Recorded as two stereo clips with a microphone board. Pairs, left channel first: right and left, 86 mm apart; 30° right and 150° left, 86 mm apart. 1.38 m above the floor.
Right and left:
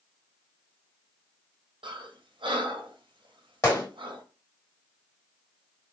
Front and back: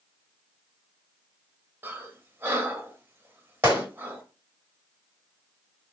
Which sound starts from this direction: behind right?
A gunshot, at 3.6 s.